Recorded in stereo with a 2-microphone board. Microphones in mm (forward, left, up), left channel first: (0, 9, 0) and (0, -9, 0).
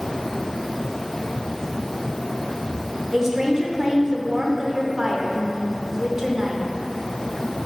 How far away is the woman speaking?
About 0.9 m.